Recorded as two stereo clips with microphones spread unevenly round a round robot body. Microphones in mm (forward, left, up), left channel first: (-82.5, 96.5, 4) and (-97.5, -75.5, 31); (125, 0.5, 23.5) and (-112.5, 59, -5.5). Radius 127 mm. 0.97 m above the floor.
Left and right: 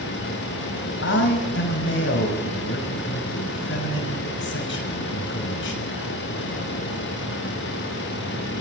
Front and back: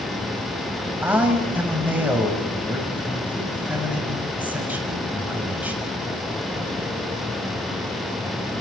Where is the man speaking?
80° left, 6 m.